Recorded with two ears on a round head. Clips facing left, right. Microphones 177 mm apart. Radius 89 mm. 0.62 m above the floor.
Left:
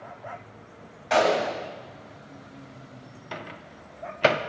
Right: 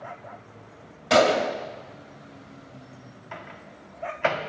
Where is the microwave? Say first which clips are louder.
Left 3 dB; 45° left (ahead or behind), 0.7 m.